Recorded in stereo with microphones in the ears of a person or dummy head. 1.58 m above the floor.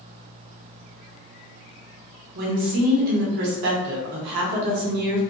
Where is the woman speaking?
55° right (ahead or behind), 0.6 m.